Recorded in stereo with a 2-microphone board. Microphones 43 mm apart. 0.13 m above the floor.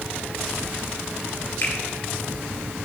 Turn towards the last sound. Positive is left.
turn(degrees=40)  # may be behind; listen again after turning